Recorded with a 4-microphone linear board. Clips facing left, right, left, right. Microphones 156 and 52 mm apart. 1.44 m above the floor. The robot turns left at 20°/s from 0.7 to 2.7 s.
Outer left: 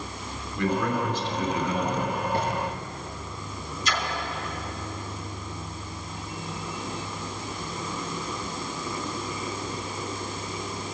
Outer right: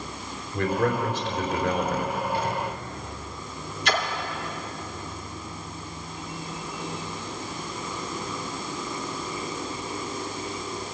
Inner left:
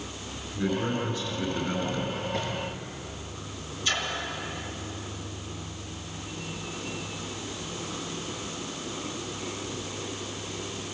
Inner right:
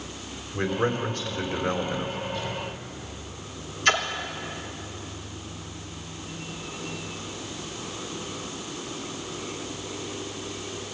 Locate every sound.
0.5 s a man speaking: 45° right (ahead or behind), 4 m; by 2.2 s 75° right (ahead or behind), 4 m
2.3 s a drawer: 45° left (ahead or behind), 9.5 m; by 2.5 s 40° left (ahead or behind), 9.5 m
3.9 s a splash: 65° right (ahead or behind), 2 m